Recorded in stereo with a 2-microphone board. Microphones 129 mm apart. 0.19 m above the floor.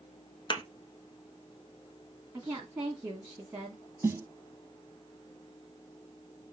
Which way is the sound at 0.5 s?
40° left (ahead or behind).